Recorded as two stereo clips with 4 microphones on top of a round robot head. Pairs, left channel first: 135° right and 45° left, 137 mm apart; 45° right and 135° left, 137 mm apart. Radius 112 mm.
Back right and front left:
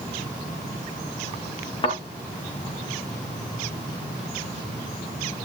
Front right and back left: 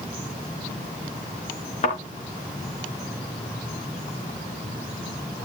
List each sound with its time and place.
1.8 s a thud: 85° right, 4 m